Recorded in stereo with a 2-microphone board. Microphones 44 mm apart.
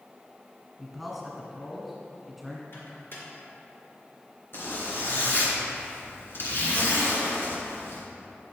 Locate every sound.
0.8 s a man speaking: 5° right (ahead or behind), 2 m
2.7 s a microwave: 55° left (ahead or behind), 2.5 m
4.5 s a zipper: 60° left (ahead or behind), 2.5 m